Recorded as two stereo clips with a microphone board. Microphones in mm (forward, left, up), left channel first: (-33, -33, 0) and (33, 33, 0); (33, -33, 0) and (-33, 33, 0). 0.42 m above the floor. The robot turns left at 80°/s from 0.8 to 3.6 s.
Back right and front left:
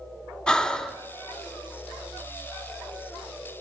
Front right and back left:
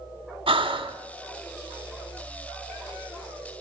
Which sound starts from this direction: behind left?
Breathing, at 0.5 s.